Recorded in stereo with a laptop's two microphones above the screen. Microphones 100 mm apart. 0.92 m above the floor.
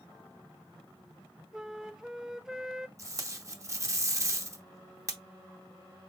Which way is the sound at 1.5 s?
5° right (ahead or behind).